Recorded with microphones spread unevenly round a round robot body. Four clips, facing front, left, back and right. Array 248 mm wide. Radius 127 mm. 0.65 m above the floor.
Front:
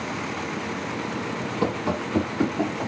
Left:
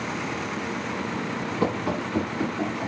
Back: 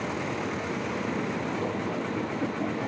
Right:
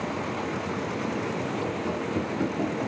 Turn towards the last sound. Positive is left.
turn(degrees=-10)